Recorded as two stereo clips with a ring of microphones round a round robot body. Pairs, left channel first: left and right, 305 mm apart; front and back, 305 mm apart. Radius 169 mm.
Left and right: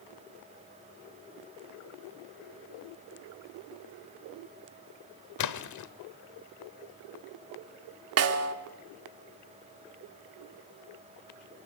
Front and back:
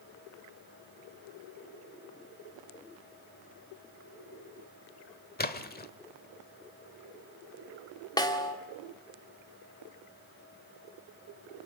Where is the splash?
60° left, 1.2 m.